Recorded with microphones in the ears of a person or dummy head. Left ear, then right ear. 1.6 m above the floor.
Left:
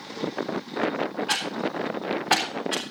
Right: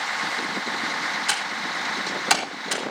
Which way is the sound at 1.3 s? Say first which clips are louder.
Right 2 dB; 80° right.